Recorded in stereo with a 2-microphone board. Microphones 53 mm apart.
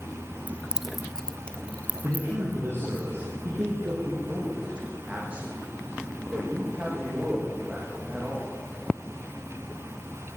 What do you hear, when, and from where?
0.5 s keys jangling: 35° right (ahead or behind), 1.0 m; by 3.0 s 35° left (ahead or behind), 4 m
2.0 s a man speaking: 50° right (ahead or behind), 5 m
4.0 s a man speaking: 20° right (ahead or behind), 7 m